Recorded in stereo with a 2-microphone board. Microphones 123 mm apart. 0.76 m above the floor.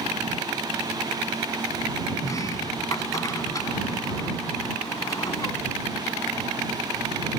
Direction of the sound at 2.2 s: 30° left (ahead or behind).